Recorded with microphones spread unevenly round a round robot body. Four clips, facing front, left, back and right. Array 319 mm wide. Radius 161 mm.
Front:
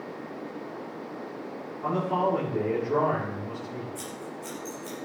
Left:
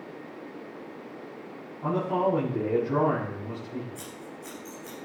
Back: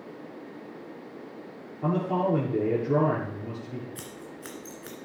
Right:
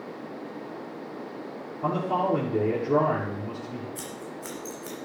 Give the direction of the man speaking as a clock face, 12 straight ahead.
5 o'clock.